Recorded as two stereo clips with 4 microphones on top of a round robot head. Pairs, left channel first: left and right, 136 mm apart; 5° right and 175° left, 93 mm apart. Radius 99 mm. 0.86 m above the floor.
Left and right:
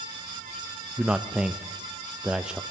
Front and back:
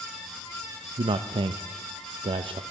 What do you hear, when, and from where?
1.0 s a man speaking: 175° right, 0.5 m